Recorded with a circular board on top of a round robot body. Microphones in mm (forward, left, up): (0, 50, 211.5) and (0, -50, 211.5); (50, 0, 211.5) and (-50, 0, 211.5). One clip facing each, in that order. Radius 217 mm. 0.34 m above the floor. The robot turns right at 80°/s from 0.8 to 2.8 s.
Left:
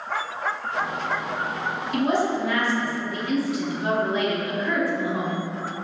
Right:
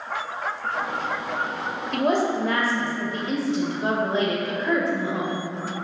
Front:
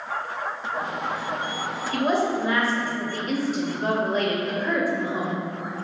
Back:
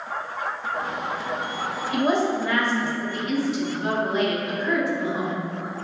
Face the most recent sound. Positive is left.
turn(degrees=-35)